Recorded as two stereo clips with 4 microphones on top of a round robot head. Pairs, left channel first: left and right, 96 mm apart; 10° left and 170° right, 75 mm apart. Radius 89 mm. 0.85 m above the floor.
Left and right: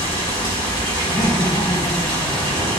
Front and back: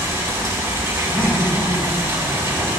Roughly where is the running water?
Behind left.